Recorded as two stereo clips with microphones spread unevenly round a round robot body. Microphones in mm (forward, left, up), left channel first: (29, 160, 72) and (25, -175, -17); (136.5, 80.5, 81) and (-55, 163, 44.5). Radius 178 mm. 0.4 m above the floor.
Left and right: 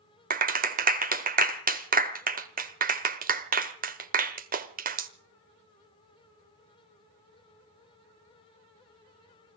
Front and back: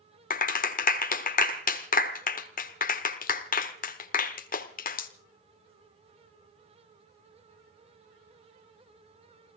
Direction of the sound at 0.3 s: 65° right.